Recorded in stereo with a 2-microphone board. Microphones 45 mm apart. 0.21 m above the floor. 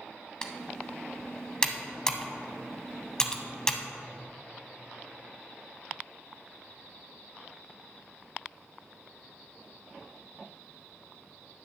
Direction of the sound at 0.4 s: 20° left (ahead or behind).